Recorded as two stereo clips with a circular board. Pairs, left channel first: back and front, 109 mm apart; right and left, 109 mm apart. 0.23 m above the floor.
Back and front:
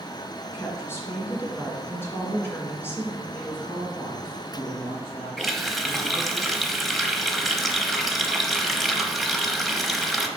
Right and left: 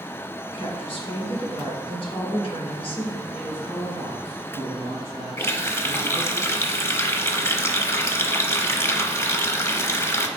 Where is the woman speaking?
115° right, 2.5 m.